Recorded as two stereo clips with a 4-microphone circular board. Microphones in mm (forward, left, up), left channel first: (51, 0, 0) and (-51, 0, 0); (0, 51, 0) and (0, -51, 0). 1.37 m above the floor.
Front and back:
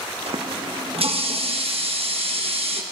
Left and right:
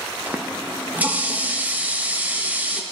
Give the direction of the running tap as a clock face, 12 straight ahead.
5 o'clock.